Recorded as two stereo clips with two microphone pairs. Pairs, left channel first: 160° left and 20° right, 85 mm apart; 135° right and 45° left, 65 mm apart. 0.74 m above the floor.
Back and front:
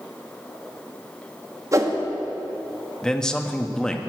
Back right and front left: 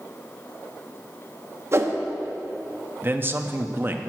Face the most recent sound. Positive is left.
turn(degrees=80)